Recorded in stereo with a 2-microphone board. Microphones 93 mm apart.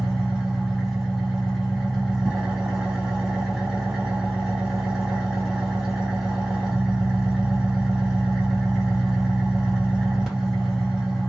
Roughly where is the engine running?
Centre.